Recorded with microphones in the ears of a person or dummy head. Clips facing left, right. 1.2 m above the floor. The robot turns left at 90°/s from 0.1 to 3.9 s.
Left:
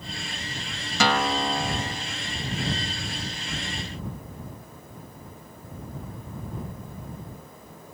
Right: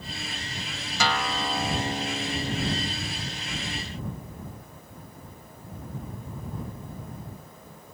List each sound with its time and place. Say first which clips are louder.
1.0 s a guitar: left 5 dB; 60° left; by 2.9 s 110° right